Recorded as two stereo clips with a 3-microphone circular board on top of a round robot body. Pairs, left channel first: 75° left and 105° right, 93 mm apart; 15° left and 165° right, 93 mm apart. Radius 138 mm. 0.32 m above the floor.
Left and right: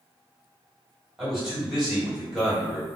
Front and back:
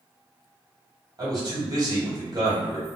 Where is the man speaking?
170° left, 2.0 m.